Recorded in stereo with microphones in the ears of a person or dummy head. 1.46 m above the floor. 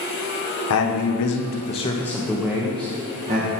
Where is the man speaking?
80° left, 1.3 m; by 3.5 s 35° right (ahead or behind), 1.9 m.